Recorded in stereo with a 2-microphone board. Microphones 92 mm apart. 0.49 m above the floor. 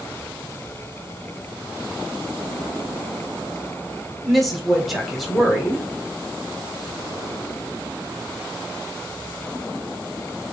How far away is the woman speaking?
About 1.3 m.